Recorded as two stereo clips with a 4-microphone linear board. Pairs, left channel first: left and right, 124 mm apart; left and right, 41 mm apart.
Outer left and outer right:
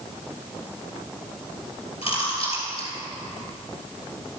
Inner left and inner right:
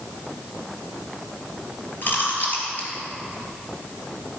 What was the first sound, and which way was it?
Chewing, 50° left (ahead or behind).